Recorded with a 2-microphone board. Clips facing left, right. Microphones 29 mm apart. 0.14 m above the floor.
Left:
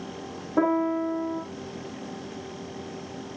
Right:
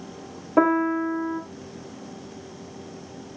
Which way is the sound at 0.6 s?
70° right (ahead or behind).